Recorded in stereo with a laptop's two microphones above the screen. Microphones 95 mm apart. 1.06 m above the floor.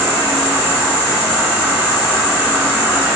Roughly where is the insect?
Right.